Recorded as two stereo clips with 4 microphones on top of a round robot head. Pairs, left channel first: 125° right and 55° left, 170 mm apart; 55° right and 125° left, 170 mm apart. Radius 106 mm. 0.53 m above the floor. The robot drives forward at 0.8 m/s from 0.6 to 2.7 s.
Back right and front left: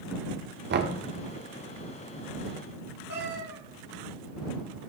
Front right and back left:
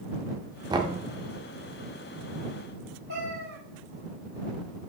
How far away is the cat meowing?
About 1.5 m.